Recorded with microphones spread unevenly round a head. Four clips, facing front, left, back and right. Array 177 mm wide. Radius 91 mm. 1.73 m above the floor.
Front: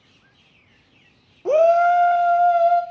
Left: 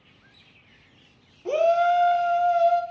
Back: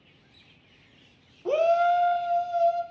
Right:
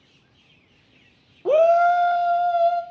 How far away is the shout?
About 0.8 m.